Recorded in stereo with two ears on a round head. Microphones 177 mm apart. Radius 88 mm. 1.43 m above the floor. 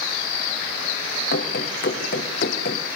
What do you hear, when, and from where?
1.3 s running footsteps: 50° left (ahead or behind), 4.5 m